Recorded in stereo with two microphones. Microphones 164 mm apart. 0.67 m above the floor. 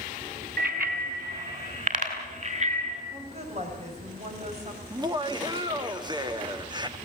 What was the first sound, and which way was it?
A bicycle bell, 65° right (ahead or behind).